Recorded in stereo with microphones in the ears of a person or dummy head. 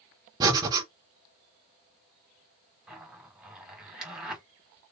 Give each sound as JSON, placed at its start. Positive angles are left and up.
{"t": 0.4, "sound": "breathing", "side_deg": -20, "distance_m": 1.3}
{"t": 2.9, "sound": "a zipper", "side_deg": -5, "distance_m": 1.7}